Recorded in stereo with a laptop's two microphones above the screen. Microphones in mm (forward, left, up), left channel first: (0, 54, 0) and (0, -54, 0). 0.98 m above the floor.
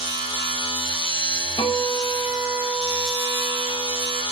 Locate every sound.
0.0 s a machine running: 50° left (ahead or behind), 0.9 m
1.6 s a guitar: 50° left (ahead or behind), 0.5 m